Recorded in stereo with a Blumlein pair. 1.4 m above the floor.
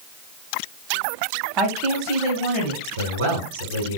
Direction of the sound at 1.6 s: 30° right.